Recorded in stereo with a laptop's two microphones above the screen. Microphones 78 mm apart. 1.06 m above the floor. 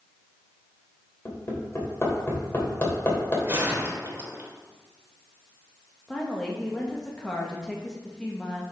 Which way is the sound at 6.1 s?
10° left (ahead or behind).